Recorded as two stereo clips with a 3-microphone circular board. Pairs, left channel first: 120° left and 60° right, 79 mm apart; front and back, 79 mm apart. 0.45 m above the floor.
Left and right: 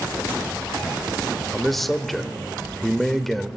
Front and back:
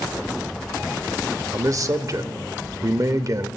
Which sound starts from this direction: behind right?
A man speaking, at 1.5 s.